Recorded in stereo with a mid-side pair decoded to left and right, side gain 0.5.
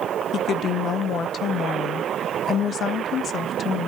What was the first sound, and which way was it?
A woman speaking, 55° left.